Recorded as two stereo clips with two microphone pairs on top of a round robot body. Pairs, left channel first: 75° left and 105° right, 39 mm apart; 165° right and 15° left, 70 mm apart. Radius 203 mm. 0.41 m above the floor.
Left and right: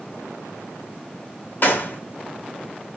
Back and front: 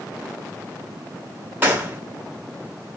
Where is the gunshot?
65° left, 1.4 m.